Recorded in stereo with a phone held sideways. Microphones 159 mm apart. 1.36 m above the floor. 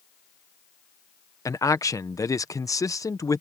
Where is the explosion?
No explosion in this recording.